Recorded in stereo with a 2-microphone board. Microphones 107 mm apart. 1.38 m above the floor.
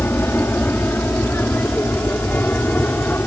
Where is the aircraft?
20° left (ahead or behind); by 3.3 s 15° left (ahead or behind).